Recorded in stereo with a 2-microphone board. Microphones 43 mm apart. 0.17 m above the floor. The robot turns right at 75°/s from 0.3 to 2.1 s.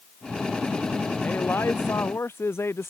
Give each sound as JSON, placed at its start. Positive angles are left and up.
{"t": 1.2, "sound": "a man speaking", "azimuth_deg": 40}